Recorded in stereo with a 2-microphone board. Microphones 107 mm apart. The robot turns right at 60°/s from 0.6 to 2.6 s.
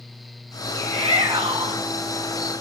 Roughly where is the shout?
Right.